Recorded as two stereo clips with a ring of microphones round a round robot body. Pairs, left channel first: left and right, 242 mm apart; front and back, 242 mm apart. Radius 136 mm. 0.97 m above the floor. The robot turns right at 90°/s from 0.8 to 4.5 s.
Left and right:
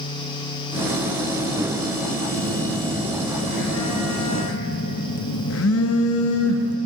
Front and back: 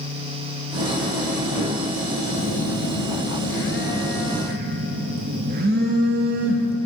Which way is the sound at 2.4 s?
70° right.